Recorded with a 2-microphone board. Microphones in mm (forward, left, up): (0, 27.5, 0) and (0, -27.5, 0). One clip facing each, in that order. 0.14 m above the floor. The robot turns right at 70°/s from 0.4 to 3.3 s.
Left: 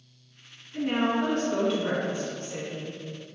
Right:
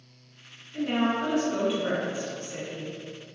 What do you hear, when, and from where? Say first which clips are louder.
0.7 s a woman speaking: even; 10° left (ahead or behind), 1.3 m; by 3.0 s 15° right (ahead or behind), 1.3 m